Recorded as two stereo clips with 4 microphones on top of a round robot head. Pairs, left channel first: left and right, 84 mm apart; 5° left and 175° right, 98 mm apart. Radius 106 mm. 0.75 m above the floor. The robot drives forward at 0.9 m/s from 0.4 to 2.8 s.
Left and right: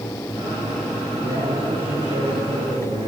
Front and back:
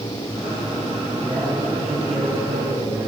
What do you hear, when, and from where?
1.2 s a man speaking: 115° right, 8.5 m; by 3.1 s 120° right, 9.5 m